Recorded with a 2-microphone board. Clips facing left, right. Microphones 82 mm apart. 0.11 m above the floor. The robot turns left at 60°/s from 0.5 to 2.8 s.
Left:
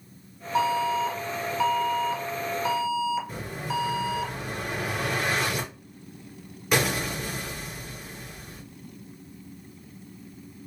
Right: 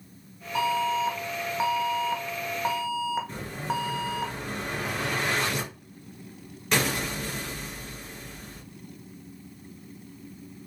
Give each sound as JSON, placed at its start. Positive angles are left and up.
{"t": 0.6, "sound": "an alarm", "azimuth_deg": 35, "distance_m": 1.0}
{"t": 3.3, "sound": "an explosion", "side_deg": 10, "distance_m": 1.9}